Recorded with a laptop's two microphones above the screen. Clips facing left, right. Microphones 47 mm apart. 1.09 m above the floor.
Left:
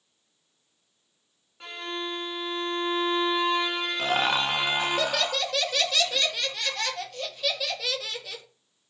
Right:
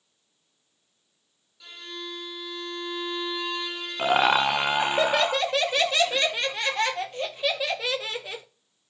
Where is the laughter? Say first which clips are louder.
Right 5 dB; 25° right (ahead or behind), 0.7 m.